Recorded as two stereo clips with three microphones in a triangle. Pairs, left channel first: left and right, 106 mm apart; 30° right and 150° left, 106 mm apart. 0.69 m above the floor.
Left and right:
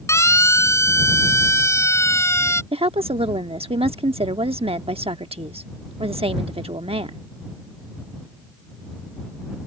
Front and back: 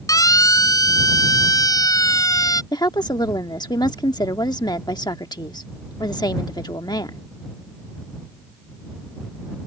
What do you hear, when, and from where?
0.1 s a siren: 25° left
2.7 s a woman speaking: 75° right